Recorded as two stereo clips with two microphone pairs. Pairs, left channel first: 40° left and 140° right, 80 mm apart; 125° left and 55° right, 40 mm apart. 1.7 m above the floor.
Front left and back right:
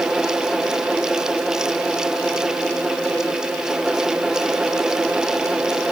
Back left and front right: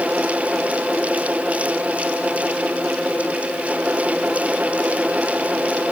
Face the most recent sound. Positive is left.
No sound to turn to.